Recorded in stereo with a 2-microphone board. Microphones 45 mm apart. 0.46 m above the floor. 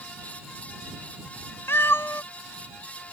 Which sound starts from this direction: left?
A cat meowing, at 1.7 s.